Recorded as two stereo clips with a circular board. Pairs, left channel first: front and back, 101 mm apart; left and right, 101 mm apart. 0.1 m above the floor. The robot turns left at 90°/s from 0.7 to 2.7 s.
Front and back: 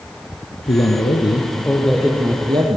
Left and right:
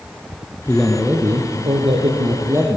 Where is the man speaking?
20° left, 3.5 m; by 2.8 s 160° right, 3.5 m.